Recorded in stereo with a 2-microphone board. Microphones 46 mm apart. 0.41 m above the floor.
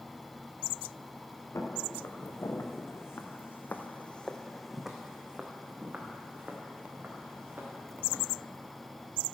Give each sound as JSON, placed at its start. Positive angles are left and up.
{"t": 1.6, "sound": "footsteps", "side_deg": 80, "distance_m": 2.5}